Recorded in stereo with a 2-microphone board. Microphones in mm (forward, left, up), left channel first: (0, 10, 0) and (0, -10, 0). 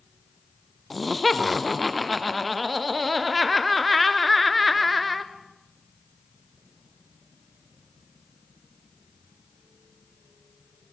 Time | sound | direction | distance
0.9 | laughter | 5° left (ahead or behind) | 1.3 m